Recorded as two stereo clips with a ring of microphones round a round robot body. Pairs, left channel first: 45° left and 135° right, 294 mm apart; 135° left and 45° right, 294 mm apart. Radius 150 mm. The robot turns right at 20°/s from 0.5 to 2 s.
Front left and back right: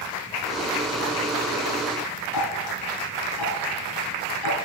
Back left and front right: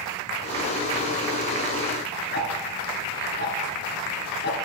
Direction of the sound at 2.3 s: 75° left.